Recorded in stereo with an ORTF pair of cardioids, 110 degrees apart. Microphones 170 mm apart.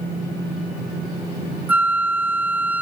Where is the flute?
10° right.